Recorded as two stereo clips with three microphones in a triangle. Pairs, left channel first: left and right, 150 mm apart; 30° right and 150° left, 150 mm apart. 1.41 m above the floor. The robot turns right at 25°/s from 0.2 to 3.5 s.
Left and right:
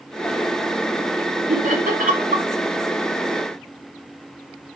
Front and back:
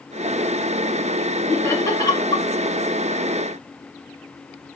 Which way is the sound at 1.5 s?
105° right.